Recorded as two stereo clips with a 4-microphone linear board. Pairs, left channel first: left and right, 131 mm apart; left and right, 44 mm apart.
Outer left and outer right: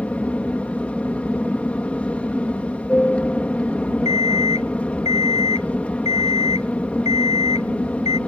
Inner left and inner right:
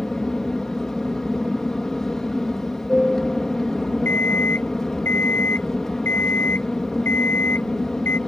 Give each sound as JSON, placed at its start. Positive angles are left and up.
{"t": 0.0, "sound": "an aircraft", "side_deg": 10}
{"t": 4.0, "sound": "an alarm clock", "side_deg": 55}